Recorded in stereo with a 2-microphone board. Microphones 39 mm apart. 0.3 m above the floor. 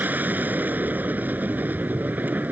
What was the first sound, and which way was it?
An aircraft, 50° right (ahead or behind).